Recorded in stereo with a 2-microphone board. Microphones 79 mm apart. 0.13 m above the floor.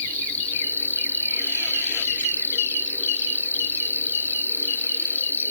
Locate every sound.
0.0 s an insect: 20° left (ahead or behind), 2.5 m